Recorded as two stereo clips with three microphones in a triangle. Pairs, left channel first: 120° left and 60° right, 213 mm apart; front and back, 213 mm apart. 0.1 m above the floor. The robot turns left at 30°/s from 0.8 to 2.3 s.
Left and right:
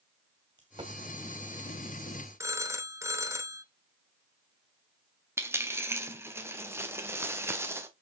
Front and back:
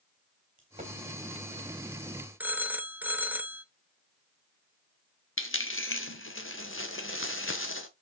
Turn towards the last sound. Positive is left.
turn(degrees=20)